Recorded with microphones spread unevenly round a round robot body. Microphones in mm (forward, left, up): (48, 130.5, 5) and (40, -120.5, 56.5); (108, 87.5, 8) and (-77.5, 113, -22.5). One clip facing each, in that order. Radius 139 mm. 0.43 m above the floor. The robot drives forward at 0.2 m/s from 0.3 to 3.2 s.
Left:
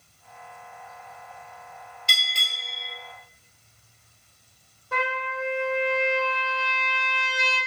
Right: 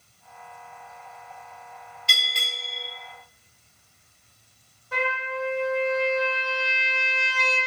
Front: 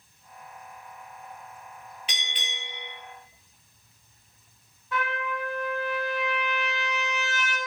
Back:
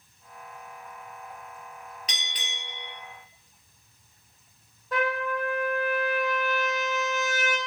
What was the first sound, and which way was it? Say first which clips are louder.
A bell: right 3 dB, front 1 dB; 115° left.